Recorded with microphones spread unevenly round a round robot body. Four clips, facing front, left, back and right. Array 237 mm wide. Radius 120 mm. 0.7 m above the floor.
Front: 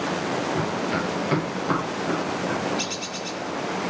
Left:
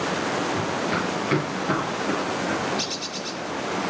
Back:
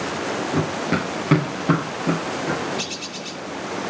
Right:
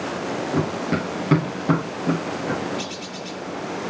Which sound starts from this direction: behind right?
Running footsteps, at 0.5 s.